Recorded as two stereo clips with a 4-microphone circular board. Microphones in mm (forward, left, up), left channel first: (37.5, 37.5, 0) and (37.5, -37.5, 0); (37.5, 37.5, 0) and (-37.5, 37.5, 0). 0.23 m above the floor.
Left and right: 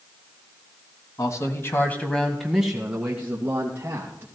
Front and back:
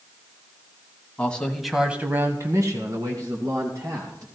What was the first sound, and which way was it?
A man speaking, 65° left.